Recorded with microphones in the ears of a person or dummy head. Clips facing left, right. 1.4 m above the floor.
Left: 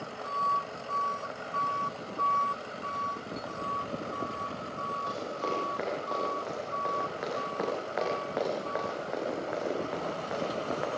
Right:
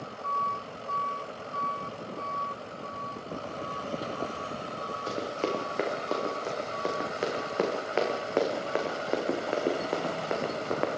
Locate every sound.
5.1 s running footsteps: 50° right (ahead or behind), 7.5 m; by 10.9 s 55° right (ahead or behind), 5 m